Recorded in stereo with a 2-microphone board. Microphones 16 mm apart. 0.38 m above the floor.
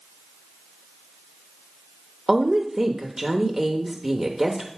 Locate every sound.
2.3 s a woman speaking: 15° right (ahead or behind), 0.8 m